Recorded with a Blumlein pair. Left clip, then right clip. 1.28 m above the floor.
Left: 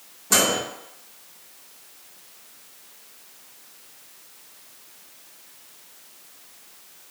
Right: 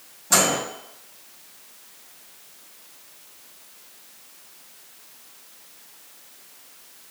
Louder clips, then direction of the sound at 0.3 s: Even; 10° left.